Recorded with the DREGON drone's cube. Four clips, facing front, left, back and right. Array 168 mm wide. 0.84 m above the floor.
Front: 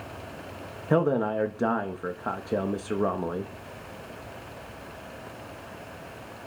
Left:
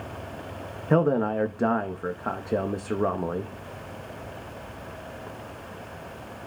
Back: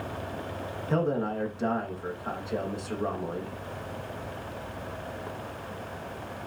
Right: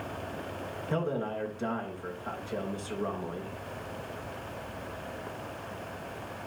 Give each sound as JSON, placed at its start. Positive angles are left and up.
{"t": 0.9, "sound": "a man speaking", "azimuth_deg": 55, "distance_m": 0.8}